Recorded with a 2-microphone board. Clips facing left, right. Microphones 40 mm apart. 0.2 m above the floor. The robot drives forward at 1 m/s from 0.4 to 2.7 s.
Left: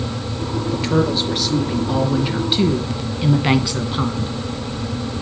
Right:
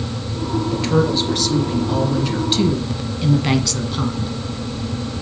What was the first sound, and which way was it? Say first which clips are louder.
A woman speaking: even; 10° left (ahead or behind).